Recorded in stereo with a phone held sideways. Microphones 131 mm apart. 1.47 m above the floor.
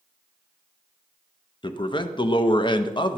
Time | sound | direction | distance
1.6 | a man speaking | 35° left (ahead or behind) | 0.5 m